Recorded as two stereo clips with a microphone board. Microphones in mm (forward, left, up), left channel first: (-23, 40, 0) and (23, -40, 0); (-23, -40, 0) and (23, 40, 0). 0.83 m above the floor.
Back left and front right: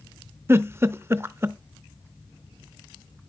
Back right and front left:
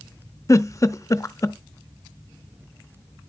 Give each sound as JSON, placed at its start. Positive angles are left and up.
{"t": 0.5, "sound": "a giggle", "azimuth_deg": -105, "distance_m": 0.5}